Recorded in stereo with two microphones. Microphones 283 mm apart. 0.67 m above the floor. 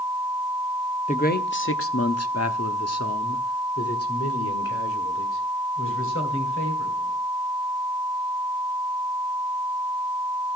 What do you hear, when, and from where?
1.1 s a man speaking: 25° left (ahead or behind), 0.8 m; by 7.2 s 45° left (ahead or behind), 3.5 m